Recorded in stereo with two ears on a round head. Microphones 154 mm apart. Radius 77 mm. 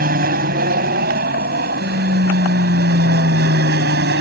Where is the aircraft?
55° right (ahead or behind); by 4.2 s 65° right (ahead or behind).